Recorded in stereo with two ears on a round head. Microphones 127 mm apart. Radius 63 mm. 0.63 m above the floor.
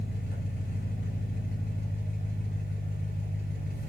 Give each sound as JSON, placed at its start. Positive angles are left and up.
{"t": 0.0, "sound": "an engine running", "side_deg": 65, "distance_m": 2.5}